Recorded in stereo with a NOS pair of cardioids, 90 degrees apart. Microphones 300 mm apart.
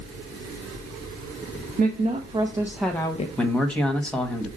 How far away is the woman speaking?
About 1.4 m.